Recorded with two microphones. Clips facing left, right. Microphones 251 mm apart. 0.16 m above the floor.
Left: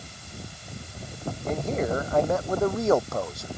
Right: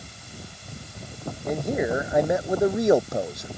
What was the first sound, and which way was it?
A man speaking, 10° right (ahead or behind).